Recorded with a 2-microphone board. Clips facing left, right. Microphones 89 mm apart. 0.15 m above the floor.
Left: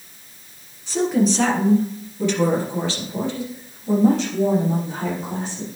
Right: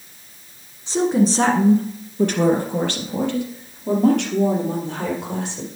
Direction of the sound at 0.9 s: 20° right (ahead or behind).